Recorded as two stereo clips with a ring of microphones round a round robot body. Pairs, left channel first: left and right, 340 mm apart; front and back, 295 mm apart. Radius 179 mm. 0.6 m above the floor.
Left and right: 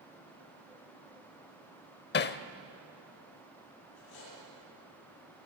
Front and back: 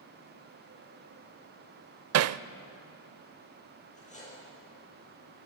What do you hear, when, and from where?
2.1 s hammering: 150° left, 0.5 m
4.0 s cutlery clinking: 65° left, 10 m